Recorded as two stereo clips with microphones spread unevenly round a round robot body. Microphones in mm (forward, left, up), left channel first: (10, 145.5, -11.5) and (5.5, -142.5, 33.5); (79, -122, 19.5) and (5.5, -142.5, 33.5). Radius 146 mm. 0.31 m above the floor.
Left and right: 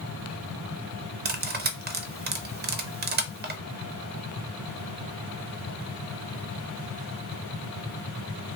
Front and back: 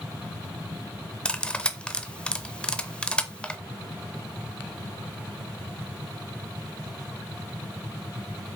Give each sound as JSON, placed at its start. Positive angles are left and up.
{"t": 1.2, "sound": "cutlery clinking", "azimuth_deg": -40, "distance_m": 0.6}